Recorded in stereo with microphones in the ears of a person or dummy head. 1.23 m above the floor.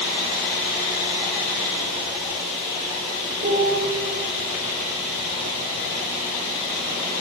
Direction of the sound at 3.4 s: 35° right (ahead or behind).